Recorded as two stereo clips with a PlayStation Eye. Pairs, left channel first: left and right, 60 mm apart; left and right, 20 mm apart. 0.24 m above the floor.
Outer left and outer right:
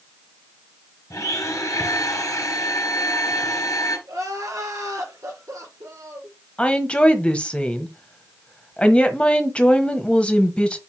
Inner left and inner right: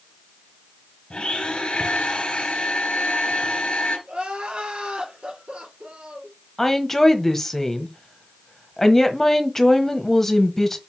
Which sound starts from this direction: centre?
A woman speaking, at 6.6 s.